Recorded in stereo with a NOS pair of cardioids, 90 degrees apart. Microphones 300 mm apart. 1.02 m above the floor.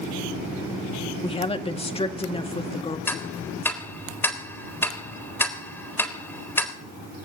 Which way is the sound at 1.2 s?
20° left.